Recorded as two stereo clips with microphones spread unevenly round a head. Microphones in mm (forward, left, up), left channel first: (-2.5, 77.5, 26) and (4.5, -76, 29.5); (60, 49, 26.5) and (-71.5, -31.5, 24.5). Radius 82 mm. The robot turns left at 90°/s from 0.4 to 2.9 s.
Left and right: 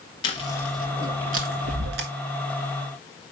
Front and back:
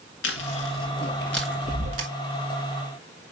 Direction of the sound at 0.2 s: 35° left.